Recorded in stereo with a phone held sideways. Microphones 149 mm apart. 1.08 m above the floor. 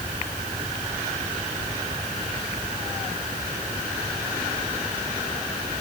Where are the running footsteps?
I don't hear running footsteps.